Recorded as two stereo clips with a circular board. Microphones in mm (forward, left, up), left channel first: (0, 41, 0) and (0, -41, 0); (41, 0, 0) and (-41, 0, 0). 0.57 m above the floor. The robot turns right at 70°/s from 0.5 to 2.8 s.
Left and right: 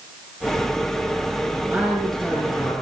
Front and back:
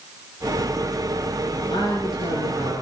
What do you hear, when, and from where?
1.7 s a man speaking: 25° right, 7.5 m; by 2.8 s 50° left, 7.5 m